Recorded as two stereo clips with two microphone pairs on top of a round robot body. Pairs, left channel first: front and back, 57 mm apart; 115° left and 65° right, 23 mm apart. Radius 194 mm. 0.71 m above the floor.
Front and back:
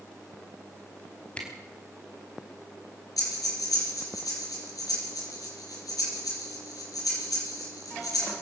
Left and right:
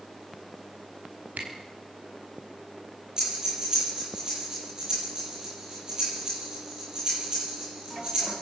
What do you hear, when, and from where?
1.4 s a camera shutter: 70° right, 4.5 m
3.2 s breathing: 5° right, 8.5 m